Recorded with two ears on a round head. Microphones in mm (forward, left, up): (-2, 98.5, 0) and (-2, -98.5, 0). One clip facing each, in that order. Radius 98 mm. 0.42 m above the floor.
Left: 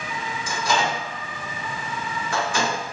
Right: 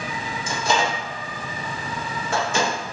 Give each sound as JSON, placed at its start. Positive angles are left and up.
{"t": 0.5, "sound": "a microwave", "side_deg": -20, "distance_m": 0.7}